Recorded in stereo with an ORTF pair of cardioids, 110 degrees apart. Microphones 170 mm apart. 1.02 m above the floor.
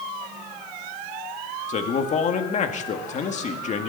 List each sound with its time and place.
1.7 s a man speaking: 45° left, 1.9 m